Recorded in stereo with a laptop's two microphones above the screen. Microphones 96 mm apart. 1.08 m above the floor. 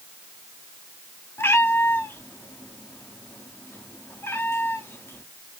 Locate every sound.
1.4 s a cat meowing: 25° left (ahead or behind), 1.0 m